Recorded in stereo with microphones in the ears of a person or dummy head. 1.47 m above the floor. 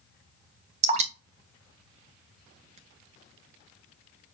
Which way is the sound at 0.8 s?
35° right (ahead or behind).